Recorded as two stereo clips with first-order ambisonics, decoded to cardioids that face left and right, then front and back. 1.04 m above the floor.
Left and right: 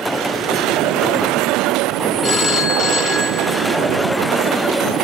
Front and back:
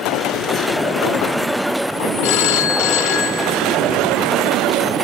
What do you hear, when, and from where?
2.2 s a phone ringing: 15° left, 0.5 m